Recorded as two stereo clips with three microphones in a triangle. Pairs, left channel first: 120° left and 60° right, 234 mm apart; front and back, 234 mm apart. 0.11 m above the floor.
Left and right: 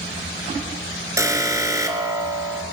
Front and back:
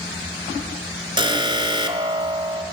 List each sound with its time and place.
1.2 s an alarm: 125° right, 1.1 m